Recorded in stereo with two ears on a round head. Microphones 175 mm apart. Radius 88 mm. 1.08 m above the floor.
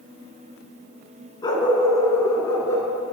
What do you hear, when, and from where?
1.4 s a dog barking: 20° left (ahead or behind), 4 m; by 2.9 s 15° left (ahead or behind), 4.5 m